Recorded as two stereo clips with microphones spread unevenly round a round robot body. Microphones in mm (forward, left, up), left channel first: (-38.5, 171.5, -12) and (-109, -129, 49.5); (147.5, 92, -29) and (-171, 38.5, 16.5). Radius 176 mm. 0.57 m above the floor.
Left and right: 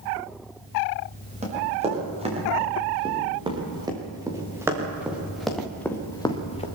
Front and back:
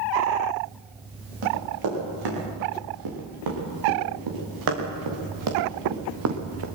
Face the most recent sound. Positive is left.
turn(degrees=145)